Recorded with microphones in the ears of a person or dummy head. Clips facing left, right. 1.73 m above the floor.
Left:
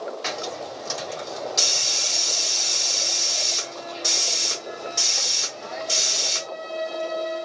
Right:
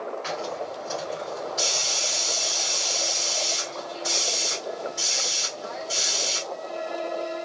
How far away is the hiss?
About 4.5 m.